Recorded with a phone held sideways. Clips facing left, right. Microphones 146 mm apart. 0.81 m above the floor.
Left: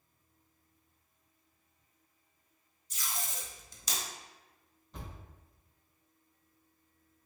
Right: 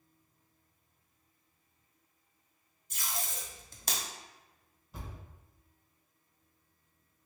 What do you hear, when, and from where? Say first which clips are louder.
2.9 s tape being pulled: right 1 dB; 55° right (ahead or behind), 0.7 m
4.9 s a thud: even; 5° right (ahead or behind), 1.4 m